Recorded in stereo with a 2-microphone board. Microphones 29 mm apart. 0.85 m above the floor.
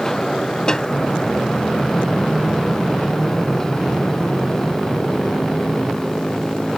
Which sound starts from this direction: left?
A snare drum, at 0.7 s.